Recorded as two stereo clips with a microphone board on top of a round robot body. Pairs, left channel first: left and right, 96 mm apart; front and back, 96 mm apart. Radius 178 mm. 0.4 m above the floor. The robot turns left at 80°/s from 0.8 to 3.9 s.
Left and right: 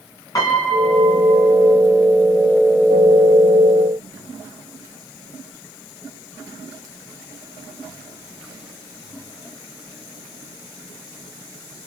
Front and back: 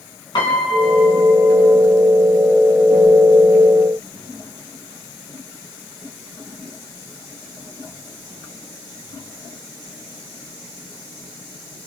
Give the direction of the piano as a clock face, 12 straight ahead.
11 o'clock.